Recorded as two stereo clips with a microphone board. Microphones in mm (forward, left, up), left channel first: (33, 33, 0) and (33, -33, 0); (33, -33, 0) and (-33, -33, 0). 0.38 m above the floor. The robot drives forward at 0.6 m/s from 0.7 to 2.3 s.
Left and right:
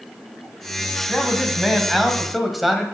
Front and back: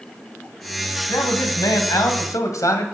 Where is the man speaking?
Straight ahead, 2.5 m.